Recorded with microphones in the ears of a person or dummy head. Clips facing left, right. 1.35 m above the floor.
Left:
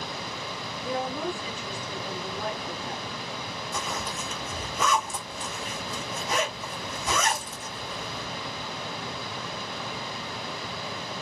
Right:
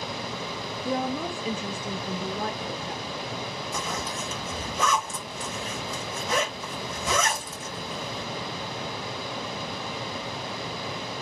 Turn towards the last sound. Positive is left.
turn(degrees=-40)  # may be behind; listen again after turning